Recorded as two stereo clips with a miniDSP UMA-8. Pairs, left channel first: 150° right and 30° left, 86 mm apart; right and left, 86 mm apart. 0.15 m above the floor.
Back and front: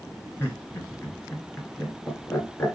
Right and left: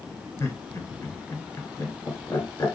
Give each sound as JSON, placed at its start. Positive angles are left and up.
{"t": 0.4, "sound": "laughter", "azimuth_deg": -100, "distance_m": 1.9}